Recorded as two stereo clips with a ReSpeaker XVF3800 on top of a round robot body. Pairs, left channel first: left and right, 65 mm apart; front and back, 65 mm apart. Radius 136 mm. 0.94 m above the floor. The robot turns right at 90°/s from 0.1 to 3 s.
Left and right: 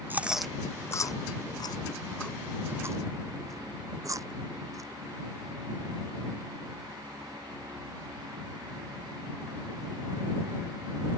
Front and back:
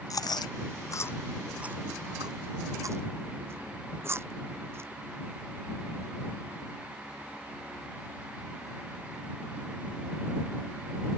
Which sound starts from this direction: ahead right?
Chewing, at 0.1 s.